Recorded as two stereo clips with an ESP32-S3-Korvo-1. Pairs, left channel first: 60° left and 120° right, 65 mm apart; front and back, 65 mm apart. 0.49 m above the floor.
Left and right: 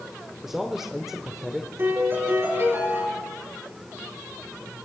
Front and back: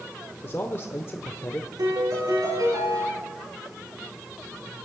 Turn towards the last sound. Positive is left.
turn(degrees=-170)